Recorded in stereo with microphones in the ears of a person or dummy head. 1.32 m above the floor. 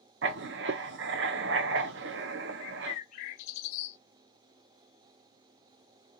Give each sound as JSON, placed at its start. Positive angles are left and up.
{"t": 0.2, "sound": "writing", "side_deg": -60, "distance_m": 0.6}
{"t": 2.6, "sound": "a bird", "side_deg": 45, "distance_m": 0.6}